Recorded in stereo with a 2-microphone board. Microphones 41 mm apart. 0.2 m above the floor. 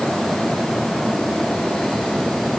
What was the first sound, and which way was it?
Only background noise.